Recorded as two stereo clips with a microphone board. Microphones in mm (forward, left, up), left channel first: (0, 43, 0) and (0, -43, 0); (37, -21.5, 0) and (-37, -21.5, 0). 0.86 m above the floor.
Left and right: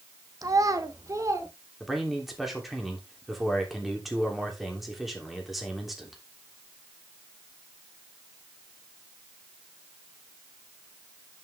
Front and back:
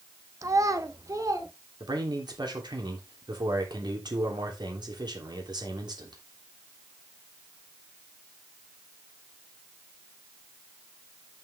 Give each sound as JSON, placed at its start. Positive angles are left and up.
{"t": 0.4, "sound": "a child speaking", "azimuth_deg": -135, "distance_m": 0.8}
{"t": 1.8, "sound": "a man speaking", "azimuth_deg": 180, "distance_m": 3.0}